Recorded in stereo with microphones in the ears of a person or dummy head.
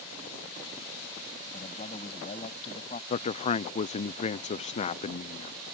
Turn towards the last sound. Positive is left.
turn(degrees=35)  # may be behind; listen again after turning